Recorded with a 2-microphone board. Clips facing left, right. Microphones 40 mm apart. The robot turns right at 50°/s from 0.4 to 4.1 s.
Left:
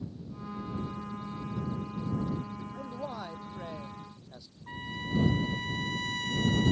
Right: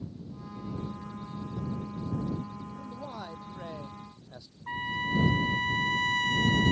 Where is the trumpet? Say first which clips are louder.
Right 6 dB; 30° right (ahead or behind).